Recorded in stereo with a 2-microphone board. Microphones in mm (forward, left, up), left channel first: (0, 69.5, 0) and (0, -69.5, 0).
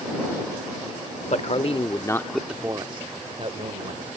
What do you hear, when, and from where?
1.3 s a man speaking: 55° left (ahead or behind); by 4.1 s 60° right (ahead or behind)